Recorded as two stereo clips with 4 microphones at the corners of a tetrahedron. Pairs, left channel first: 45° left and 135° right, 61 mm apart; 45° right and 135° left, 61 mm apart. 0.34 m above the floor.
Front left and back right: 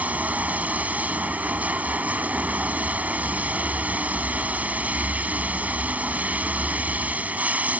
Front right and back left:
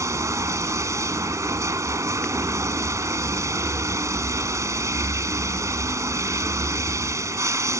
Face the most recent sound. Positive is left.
turn(degrees=160)